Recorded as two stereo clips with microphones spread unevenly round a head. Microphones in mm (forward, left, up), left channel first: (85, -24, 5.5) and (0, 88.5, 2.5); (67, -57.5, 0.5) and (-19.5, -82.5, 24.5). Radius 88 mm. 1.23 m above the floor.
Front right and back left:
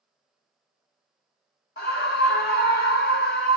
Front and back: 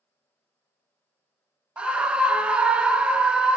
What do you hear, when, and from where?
1.8 s a scream: 85° right, 0.7 m